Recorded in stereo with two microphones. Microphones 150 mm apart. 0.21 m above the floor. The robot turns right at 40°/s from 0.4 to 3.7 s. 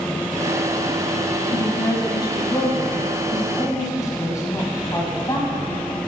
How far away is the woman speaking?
About 1.2 m.